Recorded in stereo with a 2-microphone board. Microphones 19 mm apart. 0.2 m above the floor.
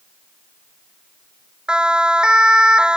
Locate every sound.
1.7 s a siren: 50° right (ahead or behind); by 3.0 s 45° right (ahead or behind)